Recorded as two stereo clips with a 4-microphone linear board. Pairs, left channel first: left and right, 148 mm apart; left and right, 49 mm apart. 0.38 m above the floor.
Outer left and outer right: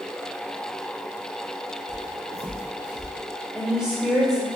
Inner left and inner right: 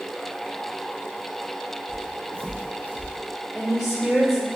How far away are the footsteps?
About 1.1 m.